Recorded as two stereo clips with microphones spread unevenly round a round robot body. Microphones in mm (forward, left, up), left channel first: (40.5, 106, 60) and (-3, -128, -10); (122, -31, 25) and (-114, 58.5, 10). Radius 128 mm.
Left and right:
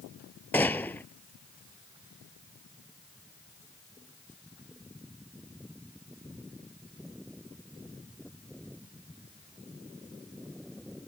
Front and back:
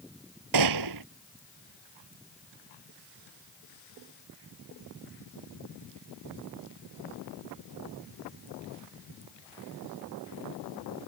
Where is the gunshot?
160° left.